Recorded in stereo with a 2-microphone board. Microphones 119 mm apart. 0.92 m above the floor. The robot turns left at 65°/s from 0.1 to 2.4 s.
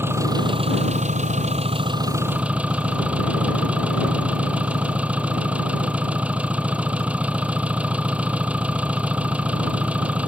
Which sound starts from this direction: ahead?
An engine running, at 0.0 s.